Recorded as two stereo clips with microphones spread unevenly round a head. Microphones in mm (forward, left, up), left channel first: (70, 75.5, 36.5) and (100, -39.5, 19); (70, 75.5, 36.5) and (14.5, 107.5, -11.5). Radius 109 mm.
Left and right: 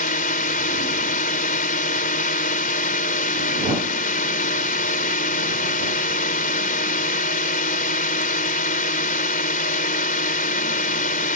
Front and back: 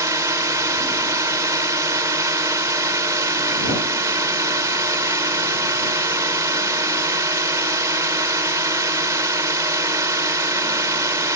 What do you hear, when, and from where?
0.0 s a drone: 115° left